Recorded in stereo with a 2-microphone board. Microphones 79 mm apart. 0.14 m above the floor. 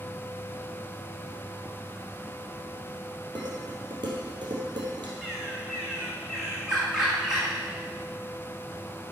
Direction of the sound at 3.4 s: 70° right (ahead or behind).